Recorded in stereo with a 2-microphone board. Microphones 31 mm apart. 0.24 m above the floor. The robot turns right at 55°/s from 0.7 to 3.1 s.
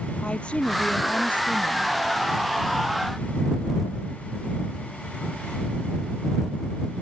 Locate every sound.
0.2 s a woman speaking: 35° left; by 1.9 s 105° left